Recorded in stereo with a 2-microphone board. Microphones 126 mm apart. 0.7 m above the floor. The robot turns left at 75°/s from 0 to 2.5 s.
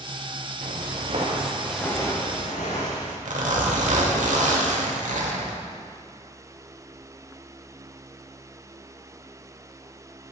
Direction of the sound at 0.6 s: 70° right (ahead or behind).